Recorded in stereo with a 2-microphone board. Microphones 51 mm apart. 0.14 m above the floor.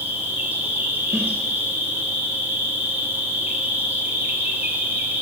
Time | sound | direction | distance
0.0 | an insect | 35° right (ahead or behind) | 1.8 m
1.1 | a snare drum | 55° right (ahead or behind) | 2.5 m